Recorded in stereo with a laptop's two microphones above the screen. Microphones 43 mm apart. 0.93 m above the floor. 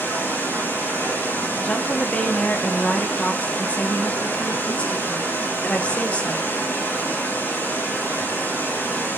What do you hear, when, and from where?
0.0 s running water: 75° left (ahead or behind), 5.5 m
1.6 s a woman speaking: 35° left (ahead or behind), 1.6 m